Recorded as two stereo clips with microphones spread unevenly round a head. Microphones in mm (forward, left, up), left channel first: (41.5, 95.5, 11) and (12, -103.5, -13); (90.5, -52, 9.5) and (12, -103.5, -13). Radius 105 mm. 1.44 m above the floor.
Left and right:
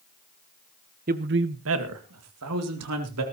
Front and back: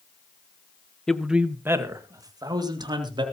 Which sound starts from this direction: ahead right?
A man speaking, at 1.1 s.